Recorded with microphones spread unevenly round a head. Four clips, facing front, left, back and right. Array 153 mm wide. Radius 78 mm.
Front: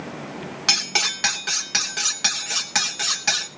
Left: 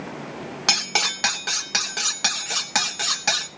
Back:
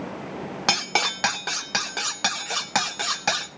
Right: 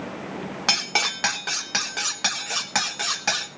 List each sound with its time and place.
0.7 s cutlery clinking: straight behind, 1.1 m